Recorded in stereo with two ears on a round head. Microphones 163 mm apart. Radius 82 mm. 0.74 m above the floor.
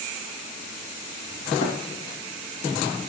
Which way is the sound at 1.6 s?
45° left (ahead or behind).